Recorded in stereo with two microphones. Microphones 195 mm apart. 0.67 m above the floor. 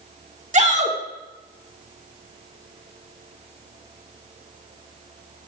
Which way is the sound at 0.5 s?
35° right (ahead or behind).